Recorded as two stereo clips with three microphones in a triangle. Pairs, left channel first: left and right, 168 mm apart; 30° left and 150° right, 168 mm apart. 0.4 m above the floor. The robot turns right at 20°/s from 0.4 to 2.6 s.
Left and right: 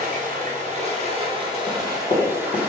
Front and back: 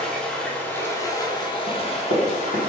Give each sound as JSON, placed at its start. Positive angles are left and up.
{"t": 0.0, "sound": "running water", "azimuth_deg": -55, "distance_m": 0.8}
{"t": 1.7, "sound": "running footsteps", "azimuth_deg": 30, "distance_m": 1.9}